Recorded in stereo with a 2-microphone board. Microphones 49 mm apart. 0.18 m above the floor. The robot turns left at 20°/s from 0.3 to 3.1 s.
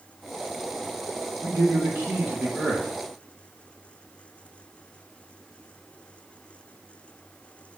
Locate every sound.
1.4 s a man speaking: 60° right (ahead or behind), 3.5 m; by 2.9 s 35° right (ahead or behind), 3.5 m